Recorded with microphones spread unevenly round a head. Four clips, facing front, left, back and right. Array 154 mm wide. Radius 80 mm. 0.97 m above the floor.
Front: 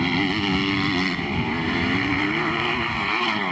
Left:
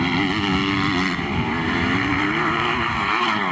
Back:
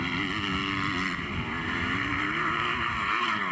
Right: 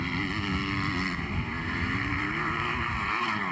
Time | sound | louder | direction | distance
0.0 | a motorcycle | left 11 dB, front 8 dB | 55° left | ?